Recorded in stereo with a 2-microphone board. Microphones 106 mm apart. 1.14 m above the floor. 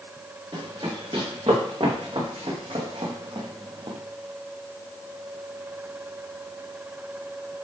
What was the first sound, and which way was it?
Running footsteps, 50° right (ahead or behind).